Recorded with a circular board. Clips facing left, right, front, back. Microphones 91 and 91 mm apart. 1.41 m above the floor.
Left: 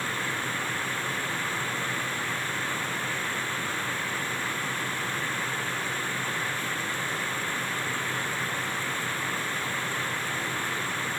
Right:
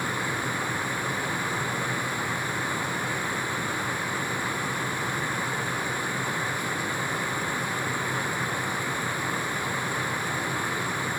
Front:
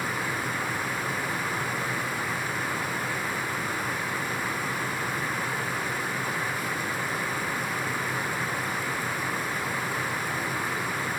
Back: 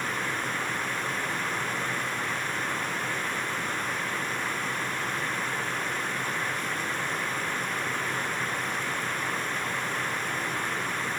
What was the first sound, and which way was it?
Only background noise.